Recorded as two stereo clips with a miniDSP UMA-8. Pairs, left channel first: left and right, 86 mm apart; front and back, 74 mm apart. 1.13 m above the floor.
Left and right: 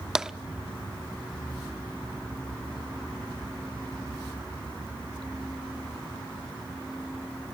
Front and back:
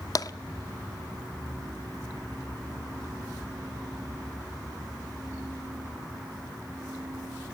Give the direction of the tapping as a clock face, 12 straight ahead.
12 o'clock.